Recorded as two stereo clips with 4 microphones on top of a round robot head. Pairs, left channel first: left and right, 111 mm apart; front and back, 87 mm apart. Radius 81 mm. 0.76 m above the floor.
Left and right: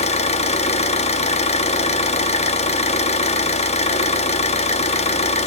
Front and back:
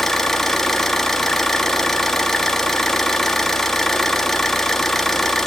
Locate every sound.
0.0 s an engine running: 85° left, 1.2 m